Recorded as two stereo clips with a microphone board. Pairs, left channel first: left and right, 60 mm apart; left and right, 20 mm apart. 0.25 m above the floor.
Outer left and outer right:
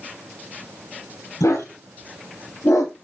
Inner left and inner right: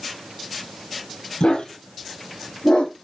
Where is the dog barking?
60° left (ahead or behind), 3 m; by 2.9 s 65° left (ahead or behind), 2.5 m.